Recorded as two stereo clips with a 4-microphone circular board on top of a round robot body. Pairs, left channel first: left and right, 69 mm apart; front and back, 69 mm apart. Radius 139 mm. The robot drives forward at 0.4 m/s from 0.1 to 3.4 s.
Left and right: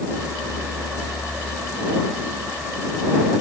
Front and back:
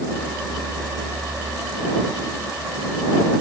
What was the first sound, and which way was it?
Only background noise.